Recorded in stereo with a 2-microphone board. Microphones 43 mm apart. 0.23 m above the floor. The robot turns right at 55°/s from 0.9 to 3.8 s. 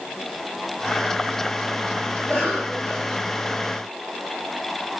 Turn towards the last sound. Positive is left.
turn(degrees=175)